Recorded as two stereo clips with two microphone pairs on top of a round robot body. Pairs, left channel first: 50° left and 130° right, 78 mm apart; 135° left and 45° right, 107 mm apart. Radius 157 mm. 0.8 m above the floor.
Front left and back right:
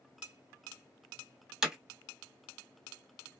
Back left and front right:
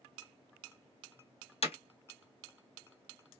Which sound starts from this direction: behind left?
Hammering, at 1.6 s.